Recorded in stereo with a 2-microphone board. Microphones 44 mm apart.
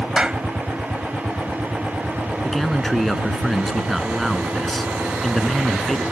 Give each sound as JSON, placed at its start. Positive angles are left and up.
{"t": 0.2, "sound": "a clap", "side_deg": -20}
{"t": 2.4, "sound": "a man speaking", "side_deg": 5}